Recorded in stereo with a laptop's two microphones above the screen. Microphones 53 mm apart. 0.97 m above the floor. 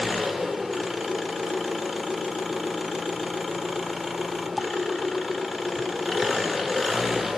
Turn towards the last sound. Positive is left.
turn(degrees=0)  # may be behind; listen again after turning